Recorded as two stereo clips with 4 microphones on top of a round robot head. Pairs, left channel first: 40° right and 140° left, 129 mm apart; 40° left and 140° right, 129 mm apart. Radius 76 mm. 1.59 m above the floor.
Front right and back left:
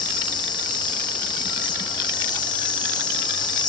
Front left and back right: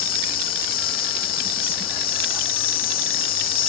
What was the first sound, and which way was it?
An insect, 20° left.